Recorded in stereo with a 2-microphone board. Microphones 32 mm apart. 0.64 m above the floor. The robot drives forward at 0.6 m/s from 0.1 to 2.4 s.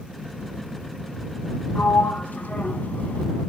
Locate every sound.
1.8 s a sliding door: 75° left (ahead or behind), 1.1 m; by 3.3 s 65° left (ahead or behind), 1.2 m